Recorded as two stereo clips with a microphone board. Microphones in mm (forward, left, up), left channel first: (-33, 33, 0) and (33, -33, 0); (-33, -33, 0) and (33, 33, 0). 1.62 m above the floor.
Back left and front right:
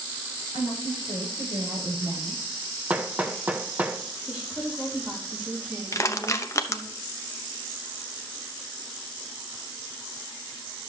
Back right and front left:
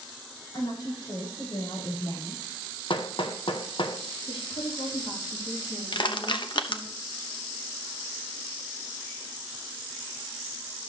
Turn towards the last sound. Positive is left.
turn(degrees=-170)